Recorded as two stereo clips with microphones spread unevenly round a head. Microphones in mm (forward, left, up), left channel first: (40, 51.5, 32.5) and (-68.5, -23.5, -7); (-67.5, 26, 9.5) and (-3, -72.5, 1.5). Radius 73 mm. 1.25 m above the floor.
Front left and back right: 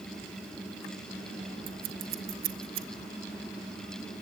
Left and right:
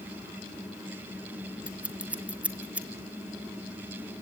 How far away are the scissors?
About 1.8 m.